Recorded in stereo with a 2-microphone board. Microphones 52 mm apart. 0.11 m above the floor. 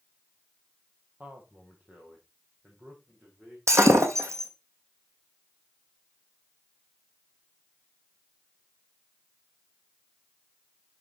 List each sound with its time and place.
1.2 s a man speaking: 30° right (ahead or behind), 3 m; by 3.6 s 20° right (ahead or behind), 5.5 m
3.7 s breaking glass: 70° right (ahead or behind), 2 m